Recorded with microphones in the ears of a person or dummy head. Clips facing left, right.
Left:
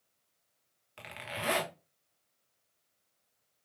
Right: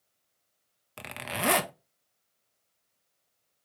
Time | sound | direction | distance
1.0 | a zipper | 75° right (ahead or behind) | 0.6 m